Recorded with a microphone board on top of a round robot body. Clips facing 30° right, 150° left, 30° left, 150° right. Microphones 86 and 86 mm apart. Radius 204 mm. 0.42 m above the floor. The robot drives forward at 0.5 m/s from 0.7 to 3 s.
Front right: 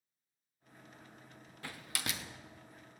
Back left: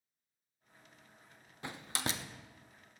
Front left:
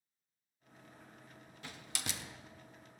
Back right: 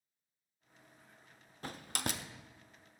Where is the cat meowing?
I don't hear a cat meowing.